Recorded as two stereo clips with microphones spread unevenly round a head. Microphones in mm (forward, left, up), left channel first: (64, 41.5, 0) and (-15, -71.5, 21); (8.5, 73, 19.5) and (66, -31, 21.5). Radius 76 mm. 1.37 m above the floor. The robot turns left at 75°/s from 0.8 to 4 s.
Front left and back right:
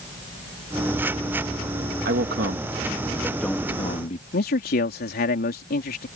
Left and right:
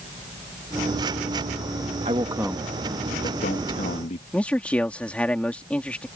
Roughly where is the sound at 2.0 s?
Behind right.